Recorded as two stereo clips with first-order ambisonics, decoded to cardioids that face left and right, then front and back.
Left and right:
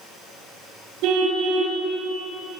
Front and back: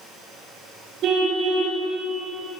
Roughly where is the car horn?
Behind right.